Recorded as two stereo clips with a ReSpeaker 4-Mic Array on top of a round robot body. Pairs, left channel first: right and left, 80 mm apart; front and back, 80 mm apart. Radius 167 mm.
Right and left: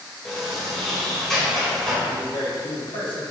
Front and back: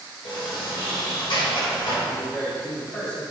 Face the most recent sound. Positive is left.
turn(degrees=-70)